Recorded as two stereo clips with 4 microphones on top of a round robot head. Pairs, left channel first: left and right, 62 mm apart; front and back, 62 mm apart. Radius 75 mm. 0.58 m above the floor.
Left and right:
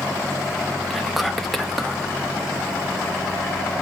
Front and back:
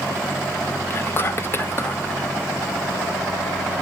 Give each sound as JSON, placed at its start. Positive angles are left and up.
{"t": 0.9, "sound": "whispering", "azimuth_deg": 0, "distance_m": 0.9}